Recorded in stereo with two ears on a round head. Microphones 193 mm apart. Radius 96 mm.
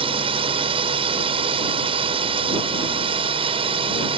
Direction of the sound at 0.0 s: 25° right (ahead or behind).